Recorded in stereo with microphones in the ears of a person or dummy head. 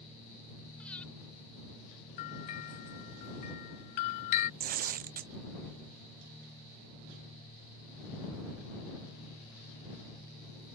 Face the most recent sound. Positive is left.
turn(degrees=-45)  # may be behind; listen again after turning